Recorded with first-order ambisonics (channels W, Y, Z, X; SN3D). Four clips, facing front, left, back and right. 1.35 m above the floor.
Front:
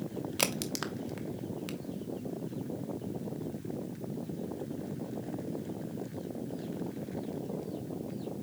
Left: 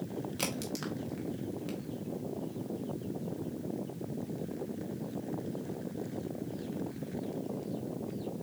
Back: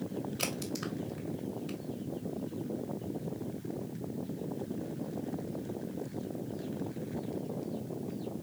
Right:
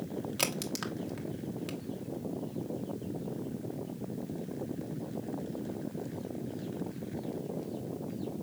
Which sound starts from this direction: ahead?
A crack, at 0.4 s.